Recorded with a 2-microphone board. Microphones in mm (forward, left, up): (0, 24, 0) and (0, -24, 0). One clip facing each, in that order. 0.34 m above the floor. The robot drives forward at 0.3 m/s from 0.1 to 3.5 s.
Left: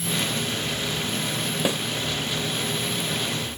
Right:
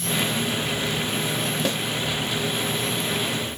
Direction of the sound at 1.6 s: 15° left (ahead or behind).